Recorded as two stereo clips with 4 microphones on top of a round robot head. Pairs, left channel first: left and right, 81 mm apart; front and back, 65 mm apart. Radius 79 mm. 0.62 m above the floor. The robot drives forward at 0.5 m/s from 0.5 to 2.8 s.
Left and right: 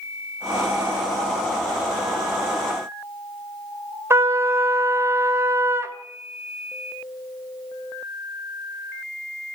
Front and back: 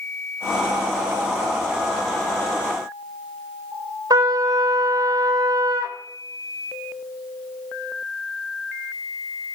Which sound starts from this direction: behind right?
A trumpet, at 4.1 s.